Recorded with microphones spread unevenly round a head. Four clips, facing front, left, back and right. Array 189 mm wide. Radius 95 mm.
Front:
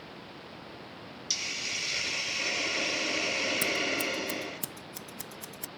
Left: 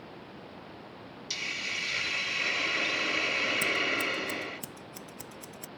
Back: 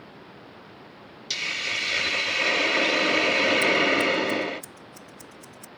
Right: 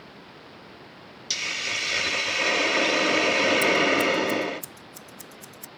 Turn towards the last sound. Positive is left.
turn(degrees=30)